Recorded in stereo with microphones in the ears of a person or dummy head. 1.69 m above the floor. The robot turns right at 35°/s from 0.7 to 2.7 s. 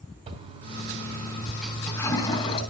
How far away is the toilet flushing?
About 3 m.